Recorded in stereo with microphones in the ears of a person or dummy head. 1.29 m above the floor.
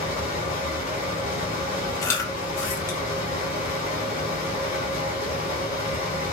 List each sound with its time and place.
0.0 s a fan: 40° left (ahead or behind), 1.2 m
2.0 s chewing: 15° left (ahead or behind), 0.6 m